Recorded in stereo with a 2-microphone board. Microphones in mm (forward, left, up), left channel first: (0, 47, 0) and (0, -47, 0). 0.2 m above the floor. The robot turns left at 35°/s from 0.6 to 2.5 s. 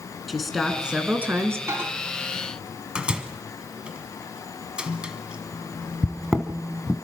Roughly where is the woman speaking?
Ahead.